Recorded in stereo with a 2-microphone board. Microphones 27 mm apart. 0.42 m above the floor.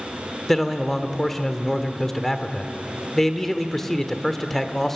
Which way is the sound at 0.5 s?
15° left (ahead or behind).